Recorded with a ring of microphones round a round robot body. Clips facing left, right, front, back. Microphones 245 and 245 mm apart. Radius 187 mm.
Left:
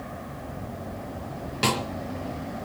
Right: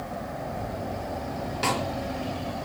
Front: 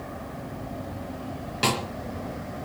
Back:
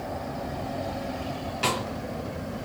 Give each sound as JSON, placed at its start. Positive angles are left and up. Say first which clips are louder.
{"t": 1.6, "sound": "a snare drum", "louder": "left 3 dB, front 3 dB", "azimuth_deg": 40, "distance_m": 5.0}